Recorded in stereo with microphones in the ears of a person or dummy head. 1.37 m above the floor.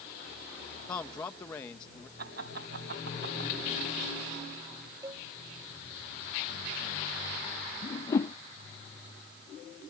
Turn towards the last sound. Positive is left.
turn(degrees=20)  # may be behind; listen again after turning